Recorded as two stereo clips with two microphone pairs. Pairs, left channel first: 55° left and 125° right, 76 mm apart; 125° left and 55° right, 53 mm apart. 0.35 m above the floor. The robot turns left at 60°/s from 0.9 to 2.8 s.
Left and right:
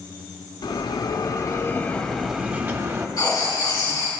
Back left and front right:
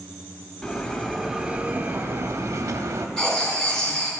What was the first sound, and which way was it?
A bell, 50° left.